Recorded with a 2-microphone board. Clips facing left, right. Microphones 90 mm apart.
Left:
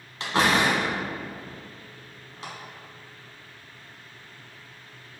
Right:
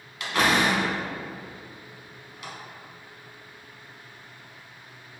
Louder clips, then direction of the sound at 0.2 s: Left 1 dB; 30° left (ahead or behind).